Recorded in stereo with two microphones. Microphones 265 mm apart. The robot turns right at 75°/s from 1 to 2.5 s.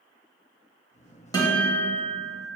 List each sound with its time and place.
1.3 s a guitar: 15° left, 1.1 m; by 2.5 s 100° left, 1.1 m